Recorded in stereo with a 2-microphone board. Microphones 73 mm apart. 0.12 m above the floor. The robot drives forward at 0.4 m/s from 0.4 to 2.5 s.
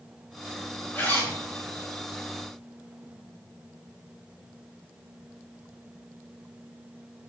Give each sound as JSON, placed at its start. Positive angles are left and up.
{"t": 0.9, "sound": "a zipper", "side_deg": 25, "distance_m": 4.5}